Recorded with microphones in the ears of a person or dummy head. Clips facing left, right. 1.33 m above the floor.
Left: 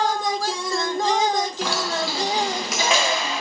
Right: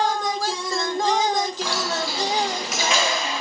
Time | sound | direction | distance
1.6 | keys jangling | 50° left (ahead or behind) | 0.9 m